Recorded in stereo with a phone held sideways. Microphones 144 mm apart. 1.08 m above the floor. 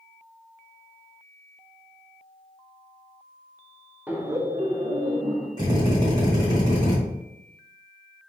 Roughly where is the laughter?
Centre.